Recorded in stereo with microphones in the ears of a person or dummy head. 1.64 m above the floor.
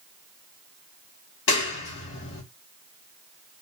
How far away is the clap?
About 1.8 m.